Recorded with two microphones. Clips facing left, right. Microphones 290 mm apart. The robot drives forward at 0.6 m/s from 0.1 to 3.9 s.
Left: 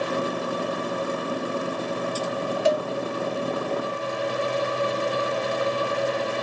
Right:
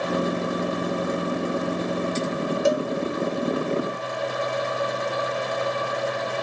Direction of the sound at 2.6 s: 55° right (ahead or behind).